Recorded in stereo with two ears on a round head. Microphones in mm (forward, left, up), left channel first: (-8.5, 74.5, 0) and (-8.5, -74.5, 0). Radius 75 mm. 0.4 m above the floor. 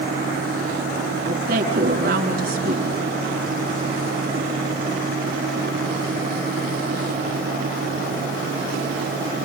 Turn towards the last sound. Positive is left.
turn(degrees=-60)  # may be behind; listen again after turning